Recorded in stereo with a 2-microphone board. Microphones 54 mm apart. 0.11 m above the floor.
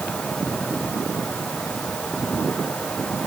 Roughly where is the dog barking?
I don't hear a dog barking.